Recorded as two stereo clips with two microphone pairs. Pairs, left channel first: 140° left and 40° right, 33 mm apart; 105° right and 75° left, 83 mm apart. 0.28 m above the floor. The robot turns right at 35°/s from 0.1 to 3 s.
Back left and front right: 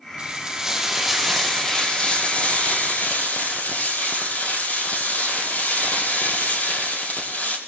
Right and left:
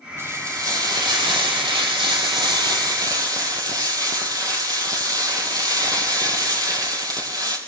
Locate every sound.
0.2 s frying: 15° left, 4 m; by 7.6 s 115° left, 4 m